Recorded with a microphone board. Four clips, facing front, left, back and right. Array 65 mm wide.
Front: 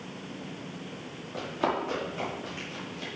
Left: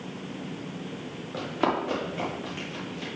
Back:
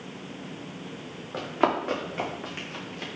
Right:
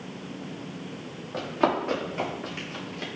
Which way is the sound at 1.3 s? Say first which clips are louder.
Right 2 dB, back 4 dB; 175° right.